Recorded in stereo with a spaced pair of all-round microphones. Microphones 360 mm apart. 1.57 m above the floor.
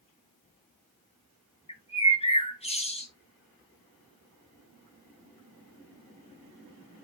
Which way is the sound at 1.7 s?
15° left (ahead or behind).